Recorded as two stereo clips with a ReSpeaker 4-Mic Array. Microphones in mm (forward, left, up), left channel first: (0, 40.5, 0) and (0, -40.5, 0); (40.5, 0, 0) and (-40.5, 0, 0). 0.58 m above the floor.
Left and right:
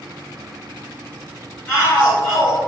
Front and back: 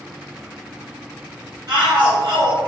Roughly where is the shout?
Behind.